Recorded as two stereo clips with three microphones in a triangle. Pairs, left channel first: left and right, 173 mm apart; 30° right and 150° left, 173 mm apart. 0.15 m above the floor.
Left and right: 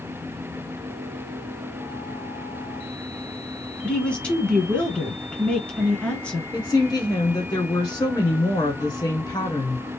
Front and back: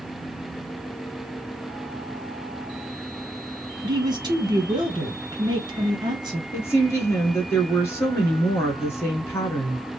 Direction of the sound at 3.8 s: 165° left.